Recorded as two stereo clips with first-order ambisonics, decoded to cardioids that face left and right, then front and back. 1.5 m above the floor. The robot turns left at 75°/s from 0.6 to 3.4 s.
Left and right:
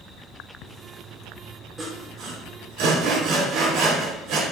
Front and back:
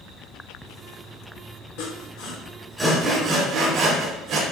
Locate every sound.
1.8 s sawing: 5° right, 4.5 m; by 4.4 s 130° right, 4.5 m